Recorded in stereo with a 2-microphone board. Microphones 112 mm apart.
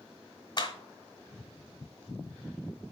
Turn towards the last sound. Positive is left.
turn(degrees=40)  # may be behind; listen again after turning